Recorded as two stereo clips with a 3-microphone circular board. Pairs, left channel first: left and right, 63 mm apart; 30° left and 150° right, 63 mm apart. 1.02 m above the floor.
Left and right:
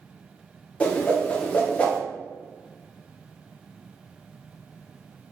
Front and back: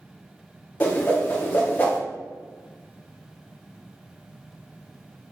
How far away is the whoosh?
About 0.8 m.